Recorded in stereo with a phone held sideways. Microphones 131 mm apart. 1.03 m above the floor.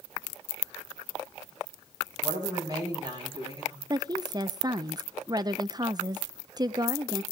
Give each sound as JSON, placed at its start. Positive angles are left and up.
{"t": 2.2, "sound": "a woman speaking", "side_deg": -30, "distance_m": 8.0}
{"t": 3.9, "sound": "a woman speaking", "side_deg": -30, "distance_m": 0.6}